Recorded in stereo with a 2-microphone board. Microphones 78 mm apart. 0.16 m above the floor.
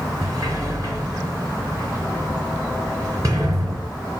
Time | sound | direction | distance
0.2 | a sliding door | 45° right (ahead or behind) | 2.5 m